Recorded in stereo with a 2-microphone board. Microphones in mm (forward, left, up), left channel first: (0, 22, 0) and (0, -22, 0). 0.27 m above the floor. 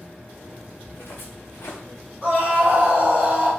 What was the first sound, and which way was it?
Footsteps, 70° left (ahead or behind).